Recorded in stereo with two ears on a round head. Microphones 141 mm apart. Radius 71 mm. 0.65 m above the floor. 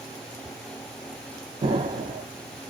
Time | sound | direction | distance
1.6 | an explosion | 30° right (ahead or behind) | 0.8 m